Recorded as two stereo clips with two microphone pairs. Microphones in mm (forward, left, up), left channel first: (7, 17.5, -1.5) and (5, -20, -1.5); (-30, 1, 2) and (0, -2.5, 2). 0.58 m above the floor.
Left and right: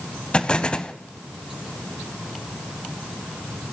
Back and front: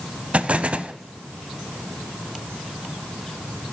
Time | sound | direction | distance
0.3 | an explosion | 30° left | 0.7 m